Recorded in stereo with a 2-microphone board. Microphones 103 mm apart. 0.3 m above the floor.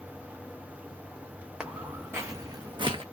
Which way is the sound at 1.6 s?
10° right (ahead or behind).